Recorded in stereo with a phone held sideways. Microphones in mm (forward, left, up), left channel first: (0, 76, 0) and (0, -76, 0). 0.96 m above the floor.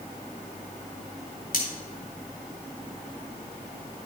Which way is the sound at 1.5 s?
60° left (ahead or behind).